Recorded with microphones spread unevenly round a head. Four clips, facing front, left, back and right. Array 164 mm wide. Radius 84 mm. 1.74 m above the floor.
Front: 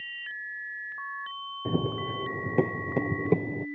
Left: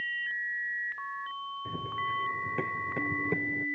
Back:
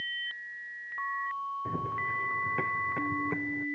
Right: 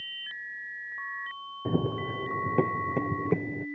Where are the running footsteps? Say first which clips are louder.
Right 6 dB, front 9 dB; 50° right; by 3.7 s 15° right.